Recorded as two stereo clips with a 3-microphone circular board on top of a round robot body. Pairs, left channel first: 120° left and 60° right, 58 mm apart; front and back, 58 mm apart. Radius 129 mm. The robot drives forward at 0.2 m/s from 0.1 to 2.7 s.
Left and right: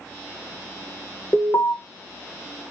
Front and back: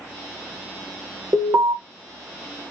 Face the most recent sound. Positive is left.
turn(degrees=155)